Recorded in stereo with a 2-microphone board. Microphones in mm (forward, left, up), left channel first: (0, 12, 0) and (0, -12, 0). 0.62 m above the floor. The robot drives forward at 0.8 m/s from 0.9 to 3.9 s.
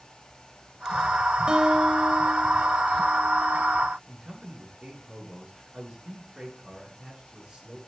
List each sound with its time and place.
1.5 s a guitar: 40° right (ahead or behind), 1.8 m; by 3.8 s 20° right (ahead or behind), 3.5 m
4.1 s a man speaking: 25° right (ahead or behind), 9.5 m